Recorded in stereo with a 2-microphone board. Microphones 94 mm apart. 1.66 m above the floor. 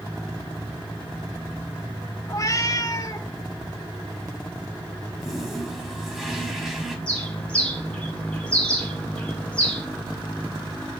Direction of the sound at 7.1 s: 10° left (ahead or behind).